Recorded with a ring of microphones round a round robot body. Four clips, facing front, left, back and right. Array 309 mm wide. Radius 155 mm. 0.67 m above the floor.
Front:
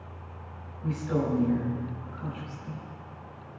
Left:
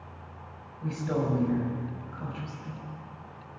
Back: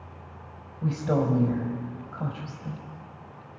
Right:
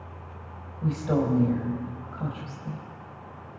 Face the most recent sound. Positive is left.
turn(degrees=-155)